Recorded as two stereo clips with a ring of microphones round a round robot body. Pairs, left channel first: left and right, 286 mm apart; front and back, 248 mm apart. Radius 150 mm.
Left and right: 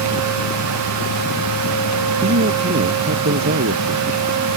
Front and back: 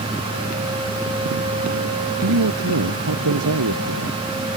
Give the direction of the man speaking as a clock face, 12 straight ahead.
5 o'clock.